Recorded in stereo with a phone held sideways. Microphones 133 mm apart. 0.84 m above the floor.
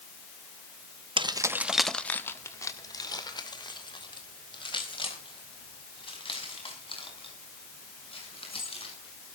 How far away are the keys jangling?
About 0.8 m.